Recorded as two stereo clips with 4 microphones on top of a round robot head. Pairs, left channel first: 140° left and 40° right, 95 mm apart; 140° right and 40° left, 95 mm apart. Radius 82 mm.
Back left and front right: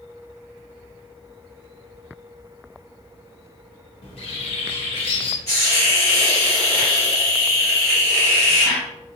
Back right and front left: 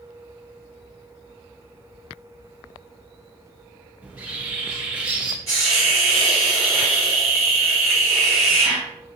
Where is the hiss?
Straight behind, 1.0 m.